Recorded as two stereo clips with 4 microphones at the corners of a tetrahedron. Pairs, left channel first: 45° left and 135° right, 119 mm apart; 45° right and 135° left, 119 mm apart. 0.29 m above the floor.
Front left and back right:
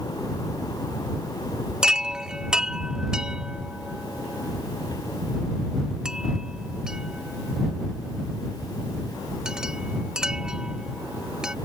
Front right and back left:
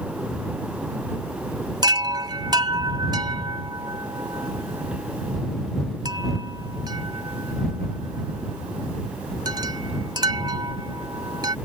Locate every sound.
1.8 s a chime: 145° left